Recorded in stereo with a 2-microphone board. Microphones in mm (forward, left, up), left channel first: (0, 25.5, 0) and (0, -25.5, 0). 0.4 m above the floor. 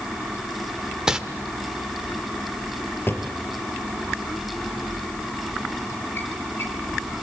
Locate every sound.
1.1 s crumpling: 10° right (ahead or behind), 1.4 m
3.1 s a drawer: 45° left (ahead or behind), 3.5 m